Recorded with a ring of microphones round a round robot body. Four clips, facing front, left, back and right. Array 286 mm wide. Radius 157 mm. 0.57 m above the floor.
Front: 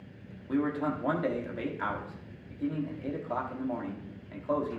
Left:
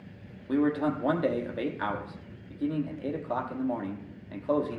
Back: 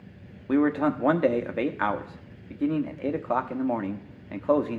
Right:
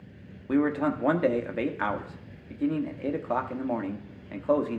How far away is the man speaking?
About 0.9 m.